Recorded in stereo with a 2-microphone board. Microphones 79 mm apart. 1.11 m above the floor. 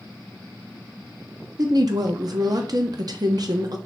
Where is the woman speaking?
55° right (ahead or behind), 0.5 m.